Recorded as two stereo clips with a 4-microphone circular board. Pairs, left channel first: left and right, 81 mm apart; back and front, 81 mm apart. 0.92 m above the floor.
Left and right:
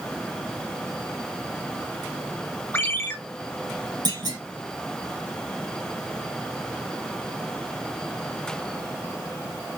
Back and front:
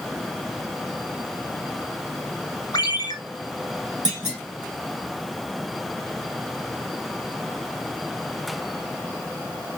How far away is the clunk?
About 2.5 m.